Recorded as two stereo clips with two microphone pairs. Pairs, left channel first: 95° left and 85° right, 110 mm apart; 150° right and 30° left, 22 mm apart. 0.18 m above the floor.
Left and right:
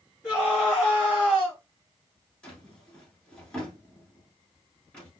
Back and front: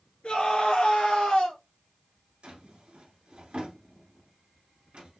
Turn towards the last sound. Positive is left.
turn(degrees=15)